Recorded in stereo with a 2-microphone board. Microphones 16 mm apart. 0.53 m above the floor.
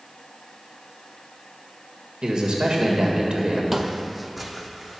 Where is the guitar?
No guitar in this recording.